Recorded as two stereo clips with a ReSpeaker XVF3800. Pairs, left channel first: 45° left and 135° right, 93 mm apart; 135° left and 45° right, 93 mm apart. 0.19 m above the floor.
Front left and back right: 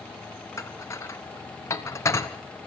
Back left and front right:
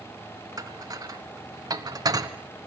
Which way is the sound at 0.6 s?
10° right.